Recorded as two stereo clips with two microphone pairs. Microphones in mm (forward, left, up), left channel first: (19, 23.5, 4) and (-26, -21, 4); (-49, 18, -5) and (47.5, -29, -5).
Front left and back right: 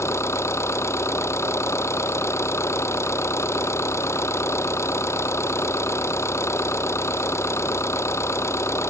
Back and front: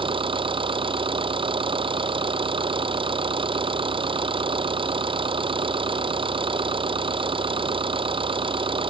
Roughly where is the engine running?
Ahead.